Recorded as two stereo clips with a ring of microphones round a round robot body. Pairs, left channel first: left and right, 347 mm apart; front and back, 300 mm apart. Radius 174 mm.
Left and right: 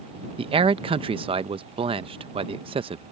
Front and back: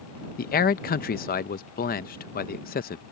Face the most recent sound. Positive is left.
turn(degrees=-30)